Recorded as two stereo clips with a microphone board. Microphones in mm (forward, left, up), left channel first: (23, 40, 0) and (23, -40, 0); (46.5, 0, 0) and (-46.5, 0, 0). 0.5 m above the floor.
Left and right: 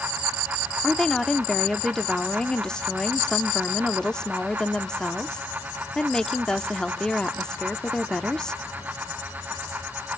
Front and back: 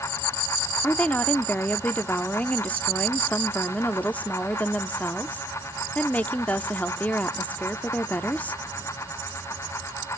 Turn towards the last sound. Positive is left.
turn(degrees=30)